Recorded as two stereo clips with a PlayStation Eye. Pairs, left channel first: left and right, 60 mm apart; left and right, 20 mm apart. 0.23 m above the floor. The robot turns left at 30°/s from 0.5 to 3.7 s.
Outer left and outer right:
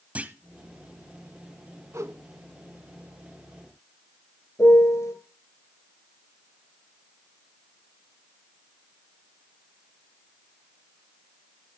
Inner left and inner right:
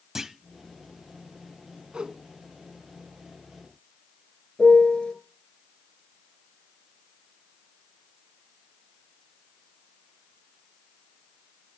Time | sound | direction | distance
0.1 | a clunk | 25° right (ahead or behind) | 0.8 m
1.9 | a whoosh | 65° right (ahead or behind) | 1.0 m
4.6 | a piano | 65° left (ahead or behind) | 2.5 m